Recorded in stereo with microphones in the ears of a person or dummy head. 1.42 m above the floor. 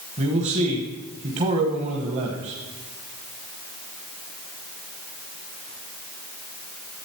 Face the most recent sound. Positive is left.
turn(degrees=-40)  # may be behind; listen again after turning